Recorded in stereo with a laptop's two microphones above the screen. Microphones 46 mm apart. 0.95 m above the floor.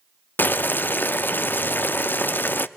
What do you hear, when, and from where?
0.4 s boiling: 50° left (ahead or behind), 0.5 m